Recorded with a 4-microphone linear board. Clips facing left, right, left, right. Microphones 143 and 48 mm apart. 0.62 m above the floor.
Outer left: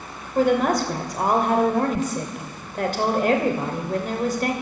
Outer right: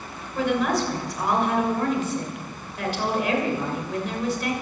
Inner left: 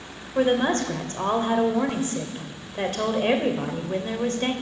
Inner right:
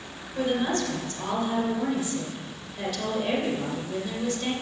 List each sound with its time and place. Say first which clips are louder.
0.3 s a woman speaking: outer left 4 dB, inner left 5 dB; 45° left (ahead or behind), 2.5 m